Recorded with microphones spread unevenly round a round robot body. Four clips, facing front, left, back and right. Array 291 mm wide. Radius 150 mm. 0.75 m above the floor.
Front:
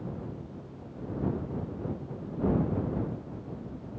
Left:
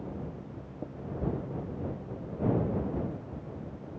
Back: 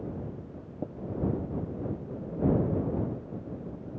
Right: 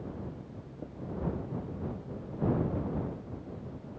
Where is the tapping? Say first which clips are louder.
Left 4 dB, back 9 dB; 170° left.